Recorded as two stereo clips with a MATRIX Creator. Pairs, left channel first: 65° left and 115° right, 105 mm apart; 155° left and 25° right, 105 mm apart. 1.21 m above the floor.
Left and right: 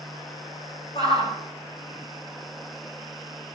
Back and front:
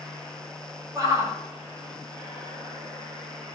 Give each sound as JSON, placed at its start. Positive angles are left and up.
{"t": 0.9, "sound": "a shout", "azimuth_deg": 40, "distance_m": 7.5}